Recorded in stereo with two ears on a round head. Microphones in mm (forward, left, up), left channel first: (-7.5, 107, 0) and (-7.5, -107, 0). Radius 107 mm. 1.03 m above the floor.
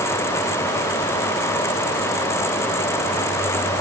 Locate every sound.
Only background noise.